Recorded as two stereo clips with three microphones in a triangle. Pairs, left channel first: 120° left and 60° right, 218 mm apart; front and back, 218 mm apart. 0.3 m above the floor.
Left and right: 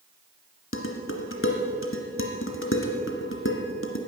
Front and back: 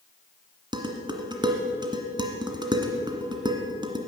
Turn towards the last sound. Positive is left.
turn(degrees=110)